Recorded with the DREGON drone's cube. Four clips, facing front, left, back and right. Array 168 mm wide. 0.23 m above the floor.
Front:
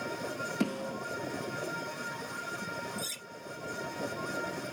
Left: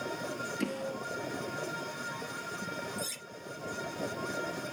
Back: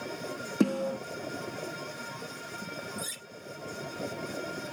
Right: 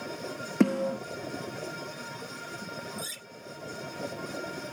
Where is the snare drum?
115° right, 6 m.